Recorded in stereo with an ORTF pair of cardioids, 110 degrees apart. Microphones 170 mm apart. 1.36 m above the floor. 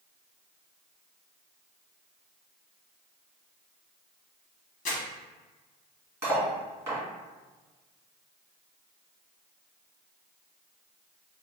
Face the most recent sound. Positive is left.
turn(degrees=-15)